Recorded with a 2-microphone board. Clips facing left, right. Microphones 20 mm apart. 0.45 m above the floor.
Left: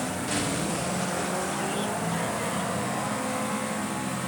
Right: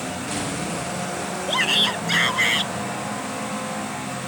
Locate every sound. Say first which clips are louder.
1.5 s a shout: right 9 dB; 75° right (ahead or behind); by 2.7 s 80° right